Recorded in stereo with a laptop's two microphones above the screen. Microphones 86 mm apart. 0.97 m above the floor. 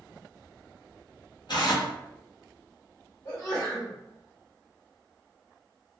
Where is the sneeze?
45° left (ahead or behind), 1.4 m.